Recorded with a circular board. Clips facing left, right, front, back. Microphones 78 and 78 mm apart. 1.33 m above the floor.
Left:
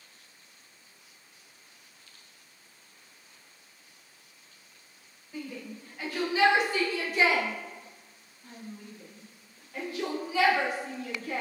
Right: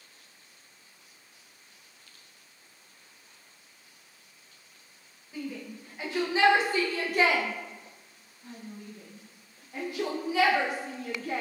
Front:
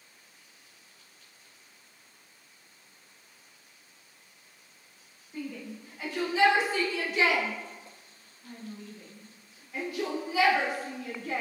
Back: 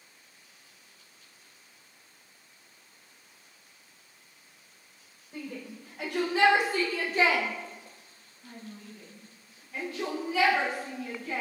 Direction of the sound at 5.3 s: 170° right.